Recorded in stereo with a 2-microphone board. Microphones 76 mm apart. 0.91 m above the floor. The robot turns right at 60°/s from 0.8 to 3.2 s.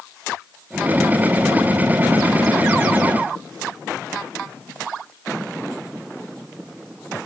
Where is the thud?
I don't hear a thud.